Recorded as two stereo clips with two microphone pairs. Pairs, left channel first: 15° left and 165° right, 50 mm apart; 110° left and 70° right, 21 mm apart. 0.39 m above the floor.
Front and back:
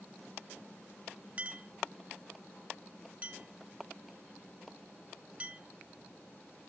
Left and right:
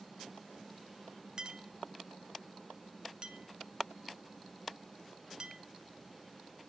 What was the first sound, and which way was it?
A clink, 110° right.